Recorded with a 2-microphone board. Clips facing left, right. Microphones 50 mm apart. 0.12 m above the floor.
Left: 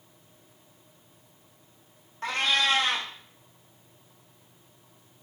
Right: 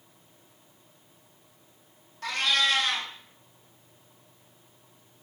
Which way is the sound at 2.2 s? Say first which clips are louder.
Left 1 dB; 30° left (ahead or behind).